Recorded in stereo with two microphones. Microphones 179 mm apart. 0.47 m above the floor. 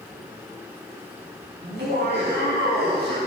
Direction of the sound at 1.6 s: 75° right (ahead or behind).